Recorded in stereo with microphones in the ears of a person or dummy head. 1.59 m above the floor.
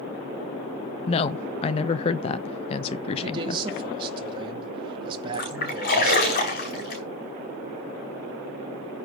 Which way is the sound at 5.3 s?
45° left (ahead or behind).